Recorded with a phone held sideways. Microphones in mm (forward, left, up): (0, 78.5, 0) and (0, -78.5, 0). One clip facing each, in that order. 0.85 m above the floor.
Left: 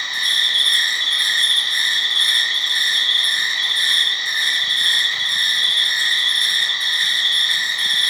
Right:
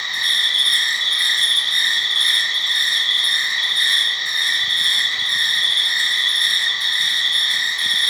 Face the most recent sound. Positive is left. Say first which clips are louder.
# even
turn(degrees=15)  # may be behind; listen again after turning